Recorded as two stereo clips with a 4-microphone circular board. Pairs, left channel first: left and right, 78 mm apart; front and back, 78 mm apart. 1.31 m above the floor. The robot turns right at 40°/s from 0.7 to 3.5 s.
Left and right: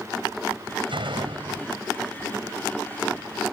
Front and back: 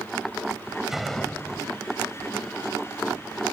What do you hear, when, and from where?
0.9 s a door slam: 95° right; by 1.8 s 55° right